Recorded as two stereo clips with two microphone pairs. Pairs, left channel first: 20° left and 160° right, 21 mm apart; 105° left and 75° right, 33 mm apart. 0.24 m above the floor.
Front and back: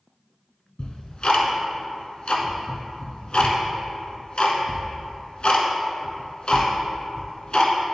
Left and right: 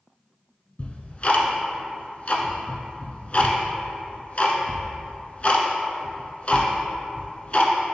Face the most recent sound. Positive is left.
turn(degrees=55)